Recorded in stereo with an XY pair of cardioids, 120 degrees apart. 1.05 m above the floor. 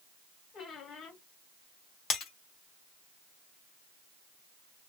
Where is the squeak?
60° left, 1.8 m.